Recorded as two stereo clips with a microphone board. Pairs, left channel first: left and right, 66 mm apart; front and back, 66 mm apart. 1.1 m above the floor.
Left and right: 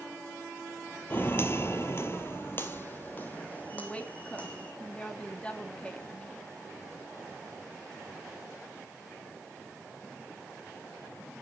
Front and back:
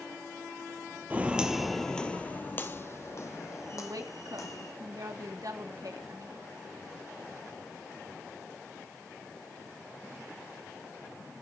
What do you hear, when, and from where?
1.1 s footsteps: 125° left, 1.4 m; by 4.7 s 20° left, 3.5 m
3.7 s a woman speaking: 160° left, 2.0 m